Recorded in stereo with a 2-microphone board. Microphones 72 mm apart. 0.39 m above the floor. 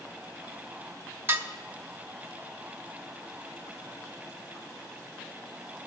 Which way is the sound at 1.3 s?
30° right (ahead or behind).